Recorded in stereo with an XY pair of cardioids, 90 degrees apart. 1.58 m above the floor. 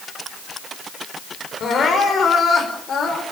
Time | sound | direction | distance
1.6 | crying | 60° left | 6 m